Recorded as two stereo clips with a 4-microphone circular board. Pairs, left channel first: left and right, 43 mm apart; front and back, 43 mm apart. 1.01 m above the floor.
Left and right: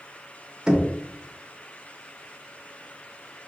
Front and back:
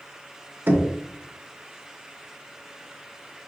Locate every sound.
0.7 s knocking: 160° right, 0.6 m